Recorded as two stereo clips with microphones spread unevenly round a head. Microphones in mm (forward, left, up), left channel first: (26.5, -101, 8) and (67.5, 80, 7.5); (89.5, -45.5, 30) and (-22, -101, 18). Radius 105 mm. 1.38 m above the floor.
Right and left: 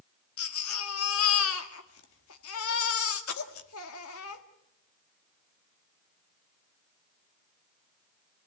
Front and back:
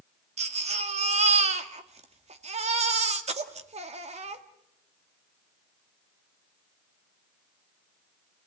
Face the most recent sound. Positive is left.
turn(degrees=-120)